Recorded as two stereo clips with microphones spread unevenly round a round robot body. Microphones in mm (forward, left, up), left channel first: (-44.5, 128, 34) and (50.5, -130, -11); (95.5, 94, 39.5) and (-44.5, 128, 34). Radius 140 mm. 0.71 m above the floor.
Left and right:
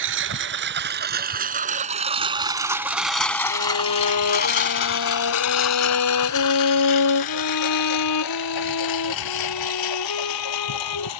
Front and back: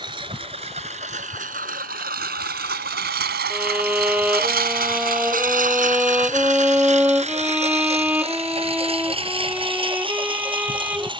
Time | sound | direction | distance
0.0 | a lawn mower | 120° right | ?
3.5 | a violin | 85° left | ?